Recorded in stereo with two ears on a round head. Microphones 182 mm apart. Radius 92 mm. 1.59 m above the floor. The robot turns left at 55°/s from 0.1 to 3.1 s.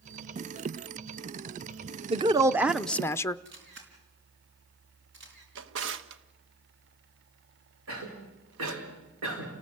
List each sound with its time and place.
2.1 s a woman speaking: 140° right, 0.6 m; by 3.4 s 165° left, 0.6 m
3.5 s a camera shutter: 55° right (ahead or behind), 5 m
5.5 s a drawer: 60° right (ahead or behind), 1.2 m
7.9 s a cough: 70° right (ahead or behind), 5.5 m